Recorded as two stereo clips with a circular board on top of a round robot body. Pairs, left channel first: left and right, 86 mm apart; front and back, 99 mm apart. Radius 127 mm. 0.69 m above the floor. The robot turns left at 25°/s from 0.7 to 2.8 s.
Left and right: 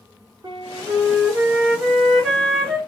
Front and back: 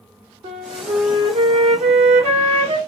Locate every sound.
0.4 s a flute: 145° right, 1.3 m; by 2.8 s 165° left, 1.3 m